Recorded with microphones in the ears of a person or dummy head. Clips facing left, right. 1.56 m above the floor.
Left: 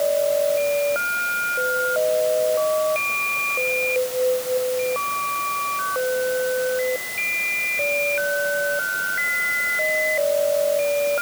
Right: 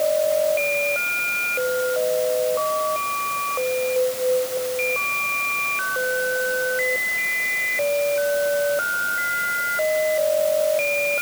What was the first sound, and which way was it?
Only background noise.